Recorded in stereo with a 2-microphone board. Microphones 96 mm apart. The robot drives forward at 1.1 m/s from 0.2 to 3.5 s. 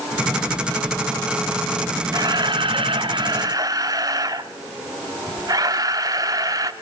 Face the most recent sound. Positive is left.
turn(degrees=-40)  # may be behind; listen again after turning